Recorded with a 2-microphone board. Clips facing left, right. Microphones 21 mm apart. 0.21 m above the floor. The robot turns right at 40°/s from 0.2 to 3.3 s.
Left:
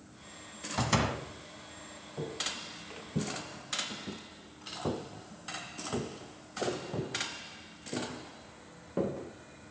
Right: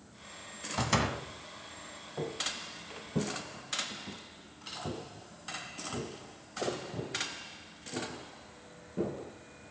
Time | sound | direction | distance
0.8 | a door slam | 5° left (ahead or behind) | 1.0 m
2.2 | footsteps | 25° right (ahead or behind) | 1.2 m